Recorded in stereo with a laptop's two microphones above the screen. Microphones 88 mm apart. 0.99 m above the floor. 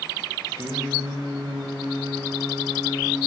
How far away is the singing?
About 0.9 m.